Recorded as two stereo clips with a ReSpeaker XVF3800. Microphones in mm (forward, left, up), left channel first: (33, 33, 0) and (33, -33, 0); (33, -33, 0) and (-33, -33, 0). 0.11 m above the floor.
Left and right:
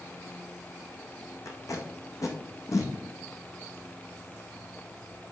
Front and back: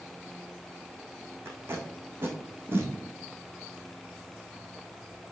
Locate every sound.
1.4 s tape being pulled: 125° left, 1.7 m